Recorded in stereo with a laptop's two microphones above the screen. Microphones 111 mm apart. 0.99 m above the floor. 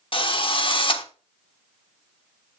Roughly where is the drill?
Left.